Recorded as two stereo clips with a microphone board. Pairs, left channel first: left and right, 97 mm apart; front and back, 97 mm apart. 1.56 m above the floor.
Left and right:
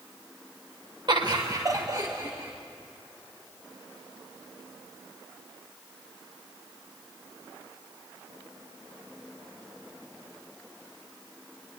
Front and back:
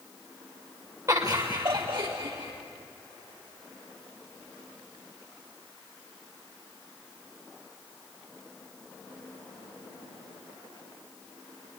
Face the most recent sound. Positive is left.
turn(degrees=-150)